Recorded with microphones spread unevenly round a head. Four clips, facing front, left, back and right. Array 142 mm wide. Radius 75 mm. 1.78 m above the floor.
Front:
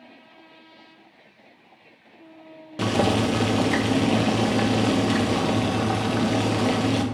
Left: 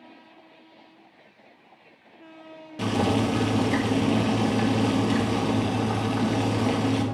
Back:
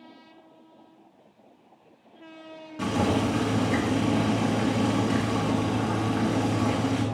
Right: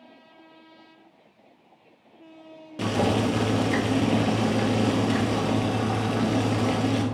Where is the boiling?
25° right, 1.3 m.